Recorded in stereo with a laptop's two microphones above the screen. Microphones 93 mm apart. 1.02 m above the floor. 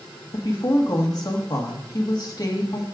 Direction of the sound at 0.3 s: 45° left (ahead or behind).